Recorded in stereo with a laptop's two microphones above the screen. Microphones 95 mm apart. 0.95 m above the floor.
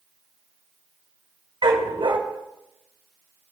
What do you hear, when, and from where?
1.6 s a dog barking: 80° right, 2.5 m